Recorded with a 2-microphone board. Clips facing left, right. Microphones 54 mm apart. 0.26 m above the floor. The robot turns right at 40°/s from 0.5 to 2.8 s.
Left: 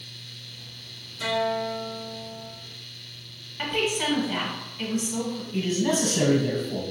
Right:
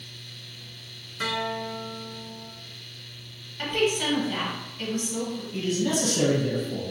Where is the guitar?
115° right, 0.8 m; by 2.5 s 65° right, 0.8 m.